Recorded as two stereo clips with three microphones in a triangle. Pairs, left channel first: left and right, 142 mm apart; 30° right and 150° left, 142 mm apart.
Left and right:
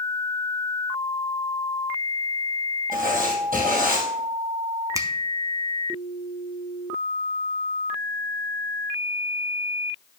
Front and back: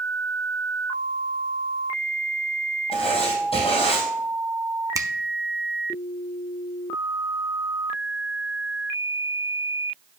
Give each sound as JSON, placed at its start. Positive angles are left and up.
{"t": 2.9, "sound": "writing", "azimuth_deg": -80, "distance_m": 3.5}
{"t": 5.0, "sound": "a finger snap", "azimuth_deg": -150, "distance_m": 0.7}